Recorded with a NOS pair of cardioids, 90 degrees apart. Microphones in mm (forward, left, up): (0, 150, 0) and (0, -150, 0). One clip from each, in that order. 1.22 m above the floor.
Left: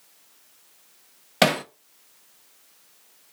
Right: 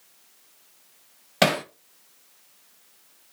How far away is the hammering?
About 0.6 m.